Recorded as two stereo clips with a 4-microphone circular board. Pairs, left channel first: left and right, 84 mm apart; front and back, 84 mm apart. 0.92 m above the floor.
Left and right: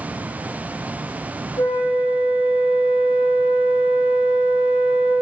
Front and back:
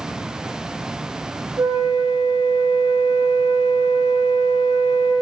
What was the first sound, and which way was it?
A flute, 125° left.